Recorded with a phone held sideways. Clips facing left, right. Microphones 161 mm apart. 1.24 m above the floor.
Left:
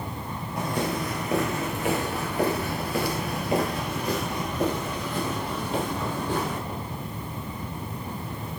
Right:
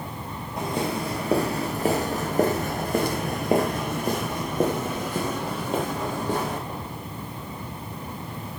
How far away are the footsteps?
About 2.0 m.